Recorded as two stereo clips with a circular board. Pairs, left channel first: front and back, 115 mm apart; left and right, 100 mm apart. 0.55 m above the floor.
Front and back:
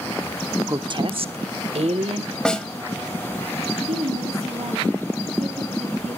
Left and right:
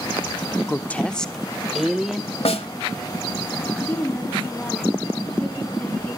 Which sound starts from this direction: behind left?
A woman speaking, at 0.7 s.